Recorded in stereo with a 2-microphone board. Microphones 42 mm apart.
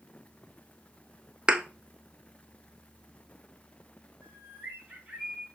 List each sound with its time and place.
1.5 s a thud: 25° right (ahead or behind), 0.6 m
4.2 s a bird: 25° right (ahead or behind), 4 m